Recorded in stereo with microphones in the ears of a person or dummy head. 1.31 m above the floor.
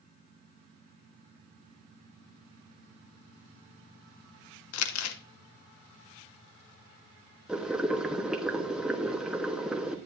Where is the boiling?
5° right (ahead or behind), 1.2 m.